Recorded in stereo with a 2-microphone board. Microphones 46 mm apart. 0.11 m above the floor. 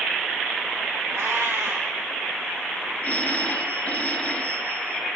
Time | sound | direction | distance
1.1 | a cat meowing | 65° right (ahead or behind) | 1.7 m
3.0 | a phone ringing | 35° left (ahead or behind) | 1.3 m